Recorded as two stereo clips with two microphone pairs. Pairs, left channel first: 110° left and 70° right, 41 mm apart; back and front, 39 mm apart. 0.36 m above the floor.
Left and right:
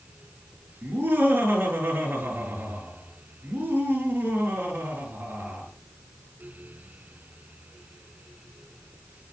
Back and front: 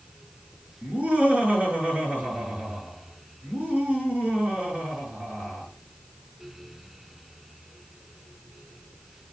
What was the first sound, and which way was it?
Laughter, 55° right.